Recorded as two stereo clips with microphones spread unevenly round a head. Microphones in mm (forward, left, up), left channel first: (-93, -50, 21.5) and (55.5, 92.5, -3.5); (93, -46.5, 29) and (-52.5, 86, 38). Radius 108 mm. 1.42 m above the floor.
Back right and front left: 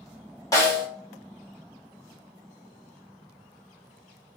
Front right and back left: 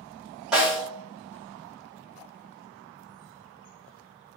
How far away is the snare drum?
About 0.9 m.